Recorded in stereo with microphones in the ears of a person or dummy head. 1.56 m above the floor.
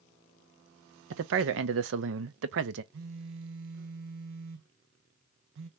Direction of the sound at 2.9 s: 65° right (ahead or behind).